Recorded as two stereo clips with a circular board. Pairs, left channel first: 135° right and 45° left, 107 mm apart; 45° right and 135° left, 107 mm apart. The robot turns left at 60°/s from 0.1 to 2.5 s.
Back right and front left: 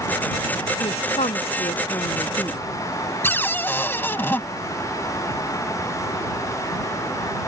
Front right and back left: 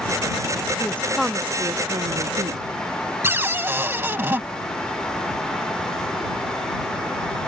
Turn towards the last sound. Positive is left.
turn(degrees=180)